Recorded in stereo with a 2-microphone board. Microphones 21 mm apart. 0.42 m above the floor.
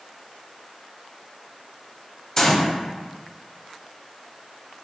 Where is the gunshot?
25° left (ahead or behind), 0.6 m.